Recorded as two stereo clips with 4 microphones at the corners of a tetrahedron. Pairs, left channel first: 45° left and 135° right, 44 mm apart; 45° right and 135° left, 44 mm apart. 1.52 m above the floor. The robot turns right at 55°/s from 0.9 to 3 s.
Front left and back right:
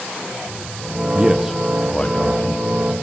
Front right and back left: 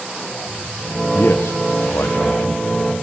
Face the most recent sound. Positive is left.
turn(degrees=30)